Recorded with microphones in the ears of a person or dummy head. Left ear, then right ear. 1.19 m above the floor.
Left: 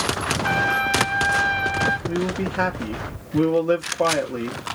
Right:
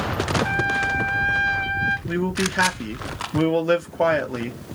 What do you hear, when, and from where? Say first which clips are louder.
0.4 s a trumpet: left 4 dB; 5° left (ahead or behind), 0.5 m
2.1 s a man speaking: right 1 dB; 25° right (ahead or behind), 0.9 m